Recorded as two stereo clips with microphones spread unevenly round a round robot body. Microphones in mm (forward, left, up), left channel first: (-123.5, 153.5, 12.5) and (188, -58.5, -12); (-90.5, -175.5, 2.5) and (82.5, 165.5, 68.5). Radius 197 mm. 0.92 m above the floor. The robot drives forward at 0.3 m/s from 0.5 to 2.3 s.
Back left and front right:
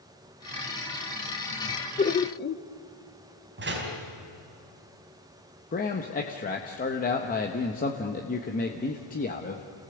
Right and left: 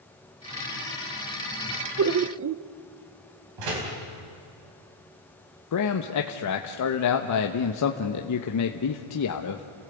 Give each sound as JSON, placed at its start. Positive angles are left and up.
{"t": 2.0, "sound": "laughter", "azimuth_deg": 90, "distance_m": 0.8}
{"t": 3.6, "sound": "a door slam", "azimuth_deg": 30, "distance_m": 4.5}
{"t": 5.7, "sound": "a man speaking", "azimuth_deg": -145, "distance_m": 1.1}